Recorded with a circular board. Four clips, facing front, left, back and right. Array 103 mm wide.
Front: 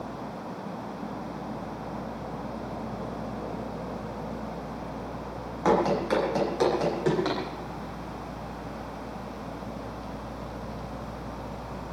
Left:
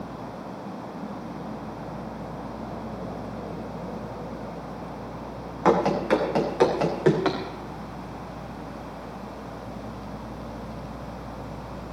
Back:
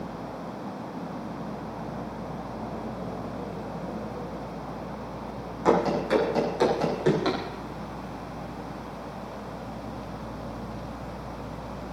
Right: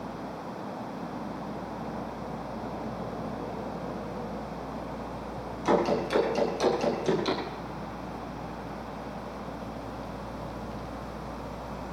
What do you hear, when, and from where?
5.7 s running footsteps: 80° left, 7 m; by 7.4 s 95° left, 7.5 m